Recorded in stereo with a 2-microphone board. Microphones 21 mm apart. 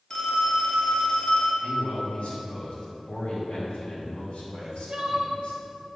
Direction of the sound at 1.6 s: 70° left (ahead or behind).